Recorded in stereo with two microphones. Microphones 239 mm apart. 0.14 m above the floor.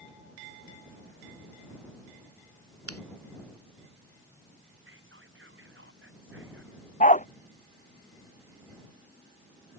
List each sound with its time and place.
2.9 s scissors: 75° right (ahead or behind)
4.8 s whispering: 55° right (ahead or behind)
7.0 s a dog barking: 30° left (ahead or behind)